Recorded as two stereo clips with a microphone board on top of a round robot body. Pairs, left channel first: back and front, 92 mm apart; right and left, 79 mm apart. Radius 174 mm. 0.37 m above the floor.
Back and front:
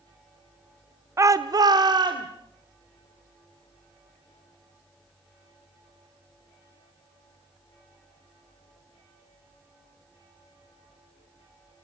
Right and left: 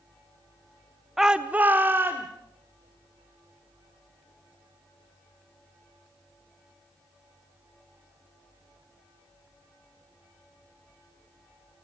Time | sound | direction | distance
1.2 | a shout | 5° left | 0.9 m